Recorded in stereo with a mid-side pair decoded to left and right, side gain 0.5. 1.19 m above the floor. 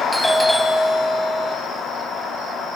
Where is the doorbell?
5° left, 1.9 m.